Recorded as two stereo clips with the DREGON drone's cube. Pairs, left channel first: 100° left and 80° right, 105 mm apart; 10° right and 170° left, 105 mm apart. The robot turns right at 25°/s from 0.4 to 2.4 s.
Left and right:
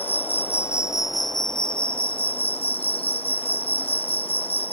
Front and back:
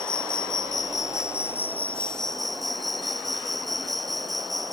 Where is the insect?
30° left; by 4.7 s 80° left.